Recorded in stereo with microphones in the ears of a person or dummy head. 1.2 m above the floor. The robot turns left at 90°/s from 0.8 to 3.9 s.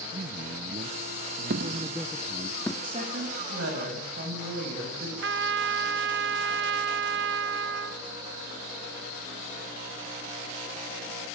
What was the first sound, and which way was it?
A man speaking, 55° right.